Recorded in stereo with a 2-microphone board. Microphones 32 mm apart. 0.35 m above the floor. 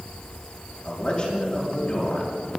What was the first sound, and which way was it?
A man speaking, 35° left (ahead or behind).